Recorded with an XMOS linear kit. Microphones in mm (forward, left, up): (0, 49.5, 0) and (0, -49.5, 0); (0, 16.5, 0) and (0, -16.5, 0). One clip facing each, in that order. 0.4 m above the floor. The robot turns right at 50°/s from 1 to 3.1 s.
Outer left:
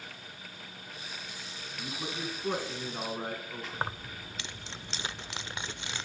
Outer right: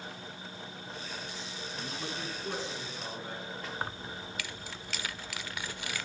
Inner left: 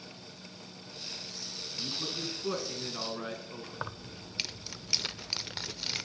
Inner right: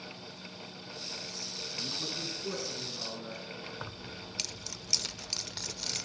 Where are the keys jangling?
25° left (ahead or behind), 0.6 m.